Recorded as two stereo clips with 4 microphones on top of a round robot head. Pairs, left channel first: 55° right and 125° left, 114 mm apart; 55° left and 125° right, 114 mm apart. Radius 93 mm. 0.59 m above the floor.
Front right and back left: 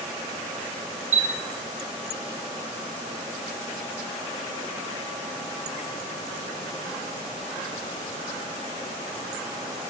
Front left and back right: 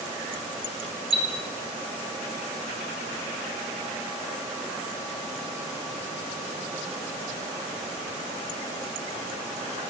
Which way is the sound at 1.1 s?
150° left.